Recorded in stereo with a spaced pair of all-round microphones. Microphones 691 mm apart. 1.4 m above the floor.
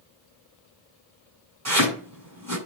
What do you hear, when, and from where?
1.6 s chopping: 25° right (ahead or behind), 7.5 m